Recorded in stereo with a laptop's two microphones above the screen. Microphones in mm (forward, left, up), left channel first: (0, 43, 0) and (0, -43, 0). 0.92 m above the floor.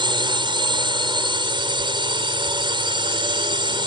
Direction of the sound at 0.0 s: 75° right (ahead or behind).